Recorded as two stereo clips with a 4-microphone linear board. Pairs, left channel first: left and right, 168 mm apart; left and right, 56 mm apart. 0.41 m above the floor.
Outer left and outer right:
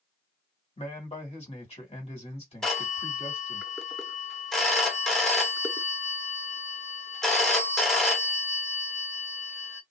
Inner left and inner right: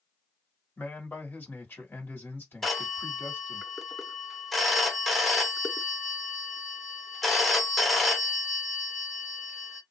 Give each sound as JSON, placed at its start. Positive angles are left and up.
{"t": 0.8, "sound": "a man speaking", "side_deg": 40, "distance_m": 2.0}
{"t": 2.6, "sound": "a phone ringing", "side_deg": 5, "distance_m": 0.7}